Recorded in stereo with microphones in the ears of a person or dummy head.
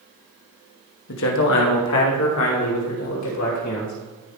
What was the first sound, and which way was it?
A man speaking, 65° left (ahead or behind).